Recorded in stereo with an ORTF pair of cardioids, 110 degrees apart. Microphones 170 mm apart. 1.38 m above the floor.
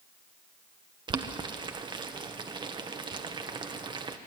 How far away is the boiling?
About 1.0 m.